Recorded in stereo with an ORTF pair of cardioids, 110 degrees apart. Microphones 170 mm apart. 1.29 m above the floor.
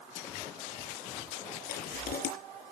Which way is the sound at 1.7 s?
70° left.